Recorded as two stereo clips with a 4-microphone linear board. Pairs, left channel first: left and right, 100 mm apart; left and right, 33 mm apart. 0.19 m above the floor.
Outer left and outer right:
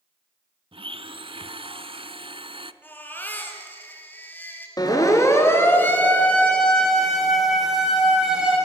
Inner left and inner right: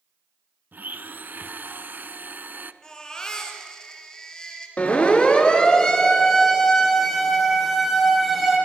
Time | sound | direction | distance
0.7 | a blender | 60° right (ahead or behind) | 0.9 m
2.8 | a baby crying | 20° left (ahead or behind) | 3.5 m
4.8 | a siren | 40° left (ahead or behind) | 3.5 m